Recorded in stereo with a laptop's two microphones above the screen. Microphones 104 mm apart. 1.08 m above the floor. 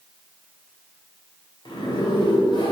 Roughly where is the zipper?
Left.